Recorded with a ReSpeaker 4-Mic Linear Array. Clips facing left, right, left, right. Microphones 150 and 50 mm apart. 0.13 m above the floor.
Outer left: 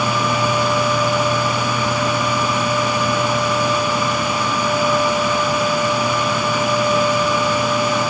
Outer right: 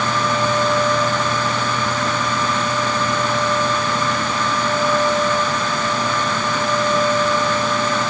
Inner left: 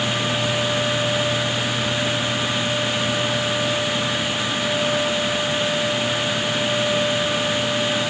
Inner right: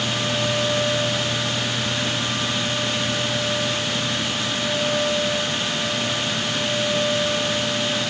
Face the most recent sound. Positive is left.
No sound to turn to.